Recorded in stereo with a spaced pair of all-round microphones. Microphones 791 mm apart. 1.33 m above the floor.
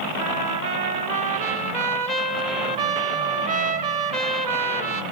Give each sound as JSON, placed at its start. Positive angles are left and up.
{"t": 0.2, "sound": "a trumpet", "side_deg": -60, "distance_m": 1.1}